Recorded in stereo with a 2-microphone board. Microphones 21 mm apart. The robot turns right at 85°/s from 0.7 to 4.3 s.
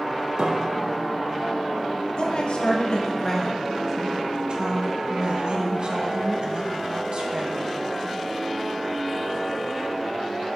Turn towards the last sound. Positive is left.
turn(degrees=-125)